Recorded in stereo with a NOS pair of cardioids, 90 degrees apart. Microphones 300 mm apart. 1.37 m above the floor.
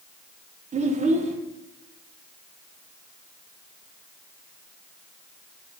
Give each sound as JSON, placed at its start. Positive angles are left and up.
{"t": 0.7, "sound": "a child speaking", "azimuth_deg": -25, "distance_m": 0.7}